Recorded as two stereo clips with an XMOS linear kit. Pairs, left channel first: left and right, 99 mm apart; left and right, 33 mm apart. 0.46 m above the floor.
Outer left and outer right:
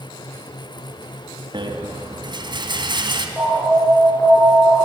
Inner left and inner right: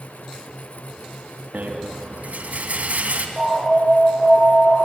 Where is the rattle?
60° right (ahead or behind), 3 m.